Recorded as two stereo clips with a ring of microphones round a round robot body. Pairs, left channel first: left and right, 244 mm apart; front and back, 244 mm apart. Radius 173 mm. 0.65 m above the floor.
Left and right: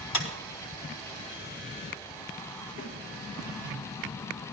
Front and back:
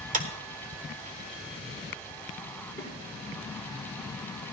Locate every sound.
0.1 s a clap: 120° left, 1.7 m
2.8 s a snare drum: 80° left, 5 m